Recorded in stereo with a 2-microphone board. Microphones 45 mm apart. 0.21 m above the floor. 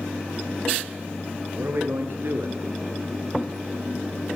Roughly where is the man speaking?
Right.